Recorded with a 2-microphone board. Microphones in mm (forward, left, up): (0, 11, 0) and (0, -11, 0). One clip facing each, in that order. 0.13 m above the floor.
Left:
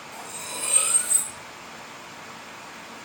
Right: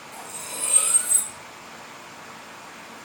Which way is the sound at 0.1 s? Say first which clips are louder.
Left 1 dB; 15° left (ahead or behind).